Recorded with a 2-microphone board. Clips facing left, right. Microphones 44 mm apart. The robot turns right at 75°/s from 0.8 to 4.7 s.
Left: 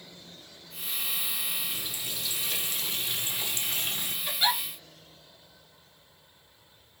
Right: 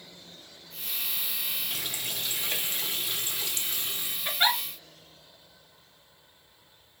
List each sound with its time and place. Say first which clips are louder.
1.7 s a running tap: right 2 dB; 105° right, 1.2 m; by 4.2 s 80° left, 1.2 m
4.2 s a giggle: right 2 dB; 45° right (ahead or behind), 2 m; by 4.6 s 65° right (ahead or behind), 2 m